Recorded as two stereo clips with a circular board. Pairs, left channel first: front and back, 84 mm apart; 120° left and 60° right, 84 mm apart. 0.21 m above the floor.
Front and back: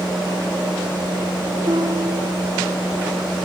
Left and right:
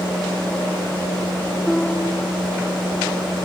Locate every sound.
1.7 s a piano: 160° right